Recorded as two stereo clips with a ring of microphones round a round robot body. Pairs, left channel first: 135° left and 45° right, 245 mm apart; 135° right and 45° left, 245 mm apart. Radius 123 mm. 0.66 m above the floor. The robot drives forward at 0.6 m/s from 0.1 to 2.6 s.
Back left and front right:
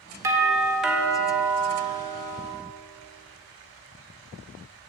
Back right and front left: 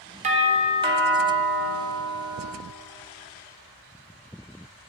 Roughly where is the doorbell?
Ahead.